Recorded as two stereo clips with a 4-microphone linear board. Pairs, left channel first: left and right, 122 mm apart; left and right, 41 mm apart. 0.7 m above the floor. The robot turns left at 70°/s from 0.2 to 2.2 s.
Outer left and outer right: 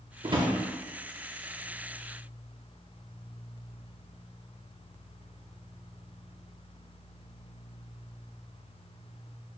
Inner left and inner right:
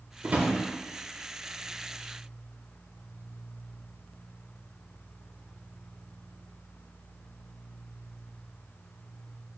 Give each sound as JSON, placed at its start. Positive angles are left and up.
{"t": 0.2, "sound": "a drawer", "side_deg": -45, "distance_m": 0.6}